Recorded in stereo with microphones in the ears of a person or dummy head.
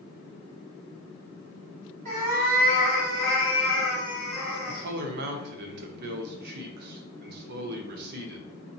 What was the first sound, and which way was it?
A cat meowing, 45° right (ahead or behind).